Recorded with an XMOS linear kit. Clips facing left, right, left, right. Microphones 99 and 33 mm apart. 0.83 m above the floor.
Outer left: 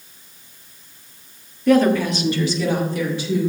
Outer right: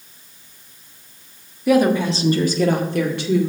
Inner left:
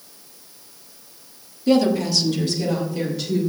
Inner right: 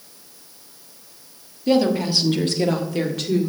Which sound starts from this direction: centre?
A woman speaking, at 1.7 s.